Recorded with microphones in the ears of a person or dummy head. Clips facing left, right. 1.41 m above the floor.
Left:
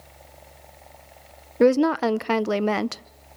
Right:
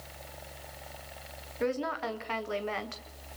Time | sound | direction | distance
1.6 | a woman speaking | 60° left (ahead or behind) | 0.6 m